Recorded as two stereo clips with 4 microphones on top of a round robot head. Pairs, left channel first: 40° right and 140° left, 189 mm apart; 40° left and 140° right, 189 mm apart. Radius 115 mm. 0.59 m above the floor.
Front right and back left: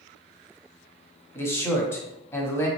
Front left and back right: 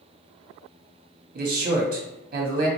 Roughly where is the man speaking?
Right.